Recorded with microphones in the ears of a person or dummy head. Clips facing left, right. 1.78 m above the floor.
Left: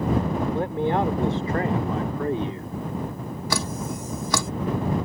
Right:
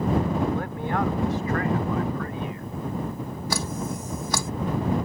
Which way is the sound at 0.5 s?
35° left (ahead or behind).